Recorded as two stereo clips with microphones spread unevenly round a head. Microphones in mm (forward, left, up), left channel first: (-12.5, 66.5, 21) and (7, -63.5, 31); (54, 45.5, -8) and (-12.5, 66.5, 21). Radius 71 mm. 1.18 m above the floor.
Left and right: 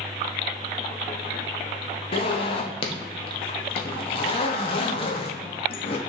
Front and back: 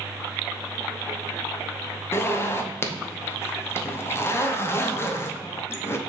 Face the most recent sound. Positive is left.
turn(degrees=45)